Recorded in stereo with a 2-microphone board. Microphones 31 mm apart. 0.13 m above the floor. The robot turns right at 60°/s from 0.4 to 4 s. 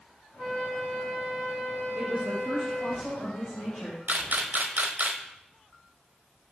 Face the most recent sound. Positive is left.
turn(degrees=-65)  # may be behind; listen again after turning